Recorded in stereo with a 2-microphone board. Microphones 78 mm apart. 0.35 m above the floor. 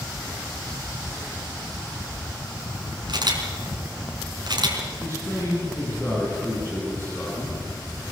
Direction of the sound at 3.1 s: 65° right (ahead or behind).